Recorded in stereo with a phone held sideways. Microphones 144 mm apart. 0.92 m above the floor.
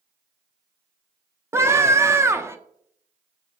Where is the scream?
20° right (ahead or behind), 0.6 m.